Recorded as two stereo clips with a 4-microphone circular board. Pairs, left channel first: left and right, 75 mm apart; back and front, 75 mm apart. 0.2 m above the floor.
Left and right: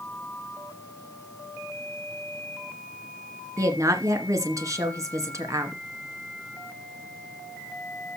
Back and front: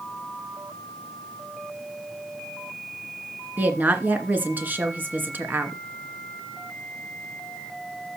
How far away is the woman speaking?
About 2 m.